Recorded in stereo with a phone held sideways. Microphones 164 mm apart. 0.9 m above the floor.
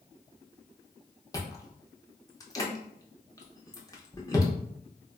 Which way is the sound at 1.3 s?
20° left (ahead or behind).